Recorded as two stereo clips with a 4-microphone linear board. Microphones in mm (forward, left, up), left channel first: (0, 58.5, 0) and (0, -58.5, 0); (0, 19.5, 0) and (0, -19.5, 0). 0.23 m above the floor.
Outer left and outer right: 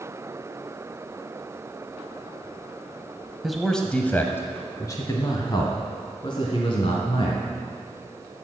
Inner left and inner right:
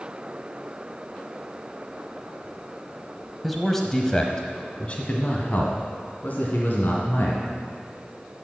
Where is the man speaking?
Centre (ahead or behind), 1.0 m; by 7.4 s 50° left (ahead or behind), 2 m.